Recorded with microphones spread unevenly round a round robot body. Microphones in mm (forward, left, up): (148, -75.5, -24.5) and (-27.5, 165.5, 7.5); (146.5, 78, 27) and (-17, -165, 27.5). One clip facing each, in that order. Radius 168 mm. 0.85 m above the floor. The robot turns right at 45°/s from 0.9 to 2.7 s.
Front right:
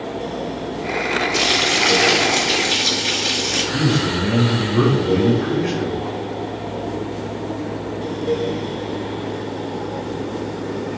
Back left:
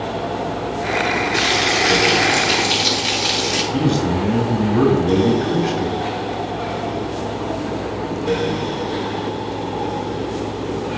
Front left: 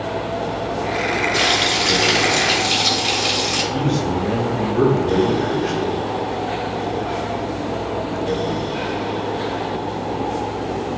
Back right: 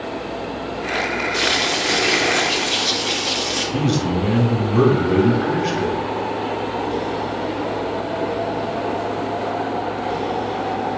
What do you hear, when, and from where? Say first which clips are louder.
1.3 s frying: back left 1 dB, front left 1 dB; 10° left, 4 m; by 3.6 s 75° left, 4 m
3.7 s a man speaking: back left 2 dB, back right 1 dB; 170° right, 2 m